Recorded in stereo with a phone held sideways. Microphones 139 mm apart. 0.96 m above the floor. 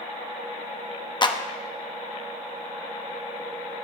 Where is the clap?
35° left (ahead or behind), 0.8 m.